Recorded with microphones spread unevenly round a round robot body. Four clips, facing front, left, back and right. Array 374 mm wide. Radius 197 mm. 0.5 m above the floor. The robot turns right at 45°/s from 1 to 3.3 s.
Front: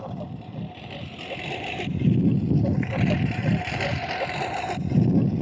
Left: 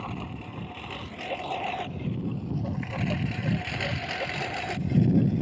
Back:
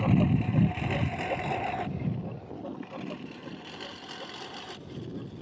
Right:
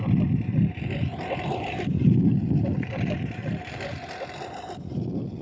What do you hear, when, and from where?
0.0 s a lawn mower: 125° right; by 5.4 s 40° left